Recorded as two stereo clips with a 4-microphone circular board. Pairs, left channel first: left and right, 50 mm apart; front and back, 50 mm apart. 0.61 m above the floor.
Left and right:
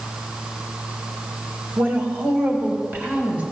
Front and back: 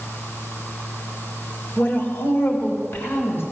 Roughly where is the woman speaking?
Ahead right.